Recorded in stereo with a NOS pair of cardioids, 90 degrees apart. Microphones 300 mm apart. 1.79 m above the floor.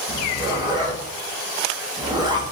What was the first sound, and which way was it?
A zipper, 15° right.